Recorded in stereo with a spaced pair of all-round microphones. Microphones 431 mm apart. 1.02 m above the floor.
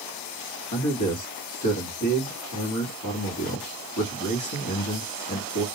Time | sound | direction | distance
0.7 | a man speaking | 45° left (ahead or behind) | 1.1 m